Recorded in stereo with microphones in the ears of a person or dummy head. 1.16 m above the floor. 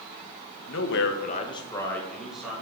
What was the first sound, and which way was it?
A man speaking, 60° left (ahead or behind).